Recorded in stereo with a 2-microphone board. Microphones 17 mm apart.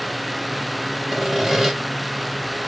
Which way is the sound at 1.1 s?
20° right (ahead or behind).